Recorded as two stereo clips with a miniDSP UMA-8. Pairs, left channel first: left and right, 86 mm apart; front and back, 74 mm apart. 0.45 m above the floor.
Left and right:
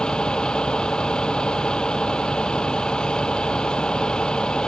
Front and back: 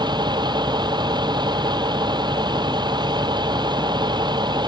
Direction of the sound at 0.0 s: 170° left.